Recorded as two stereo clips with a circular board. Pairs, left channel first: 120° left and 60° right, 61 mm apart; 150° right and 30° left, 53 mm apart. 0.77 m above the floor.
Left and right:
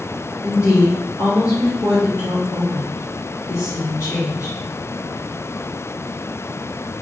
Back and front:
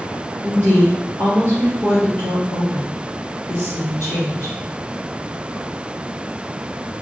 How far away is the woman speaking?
About 3 m.